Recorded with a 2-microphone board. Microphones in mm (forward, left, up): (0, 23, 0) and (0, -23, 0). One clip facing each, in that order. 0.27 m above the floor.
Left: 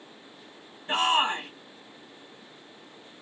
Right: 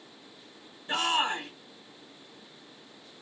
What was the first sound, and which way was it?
A shout, 40° left (ahead or behind).